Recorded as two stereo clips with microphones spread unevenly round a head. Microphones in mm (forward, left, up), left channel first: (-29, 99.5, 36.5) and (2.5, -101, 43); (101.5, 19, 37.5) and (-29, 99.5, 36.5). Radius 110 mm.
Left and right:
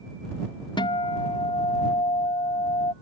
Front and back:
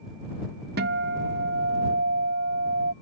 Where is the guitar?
165° left.